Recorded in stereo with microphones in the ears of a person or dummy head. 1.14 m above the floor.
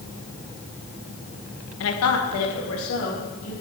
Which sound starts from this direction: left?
A woman speaking, at 1.8 s.